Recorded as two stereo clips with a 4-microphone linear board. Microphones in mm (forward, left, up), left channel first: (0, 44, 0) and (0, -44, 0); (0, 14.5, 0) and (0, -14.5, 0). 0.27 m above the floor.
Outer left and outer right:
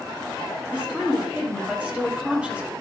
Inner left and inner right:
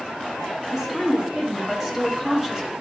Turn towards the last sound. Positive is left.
turn(degrees=-15)  # may be behind; listen again after turning